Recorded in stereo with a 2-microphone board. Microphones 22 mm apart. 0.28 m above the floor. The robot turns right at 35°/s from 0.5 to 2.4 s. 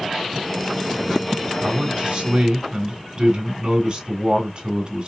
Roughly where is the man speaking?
Right.